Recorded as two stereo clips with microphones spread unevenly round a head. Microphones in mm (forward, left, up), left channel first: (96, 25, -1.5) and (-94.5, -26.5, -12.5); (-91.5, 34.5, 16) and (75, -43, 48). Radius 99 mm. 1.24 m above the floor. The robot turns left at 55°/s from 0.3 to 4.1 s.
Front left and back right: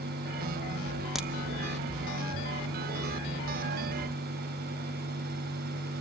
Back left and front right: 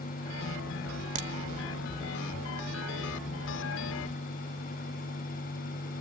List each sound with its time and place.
1.1 s a crack: 75° right, 0.8 m; by 1.3 s 85° right, 0.8 m